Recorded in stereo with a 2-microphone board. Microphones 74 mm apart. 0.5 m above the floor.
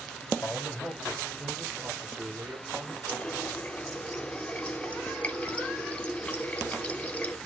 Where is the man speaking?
15° left (ahead or behind), 2.5 m; by 3.0 s 50° right (ahead or behind), 2.0 m.